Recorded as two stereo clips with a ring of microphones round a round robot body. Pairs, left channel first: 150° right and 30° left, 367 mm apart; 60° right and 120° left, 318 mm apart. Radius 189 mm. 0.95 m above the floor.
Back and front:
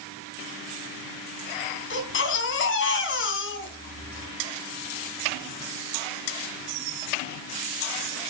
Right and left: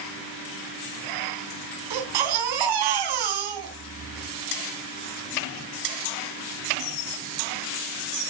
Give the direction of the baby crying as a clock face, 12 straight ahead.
7 o'clock.